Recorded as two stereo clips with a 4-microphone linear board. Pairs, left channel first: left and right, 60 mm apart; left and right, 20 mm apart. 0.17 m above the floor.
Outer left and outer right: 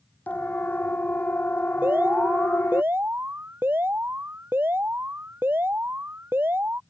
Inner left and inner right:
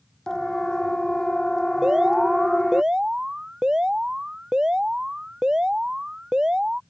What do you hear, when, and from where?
0.3 s a siren: 30° left (ahead or behind); by 2.8 s 35° left (ahead or behind)
1.8 s an alarm: 40° right (ahead or behind)